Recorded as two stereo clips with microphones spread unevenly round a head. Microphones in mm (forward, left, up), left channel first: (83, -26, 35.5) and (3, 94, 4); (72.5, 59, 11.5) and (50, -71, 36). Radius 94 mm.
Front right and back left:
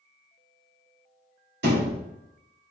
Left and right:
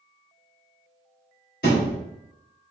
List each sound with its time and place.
1.6 s a thud: 130° left, 2 m